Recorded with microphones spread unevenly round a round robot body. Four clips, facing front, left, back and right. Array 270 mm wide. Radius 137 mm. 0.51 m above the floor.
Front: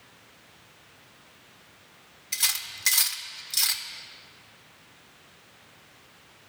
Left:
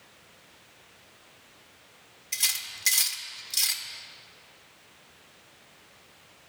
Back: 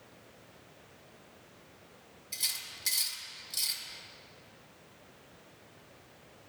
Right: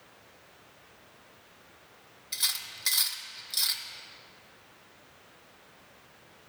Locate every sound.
2.3 s cutlery clinking: 10° left, 0.6 m